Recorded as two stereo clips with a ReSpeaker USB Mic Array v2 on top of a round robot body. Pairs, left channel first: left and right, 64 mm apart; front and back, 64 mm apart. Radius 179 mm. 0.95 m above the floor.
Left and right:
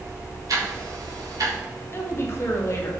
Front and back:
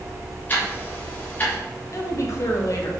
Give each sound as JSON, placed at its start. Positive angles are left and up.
{"t": 0.5, "sound": "ticking", "azimuth_deg": -60, "distance_m": 2.5}
{"t": 1.9, "sound": "a woman speaking", "azimuth_deg": 40, "distance_m": 1.8}